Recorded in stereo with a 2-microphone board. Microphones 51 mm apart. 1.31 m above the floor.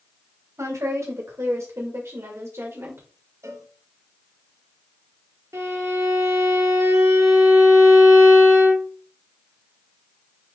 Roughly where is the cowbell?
Right.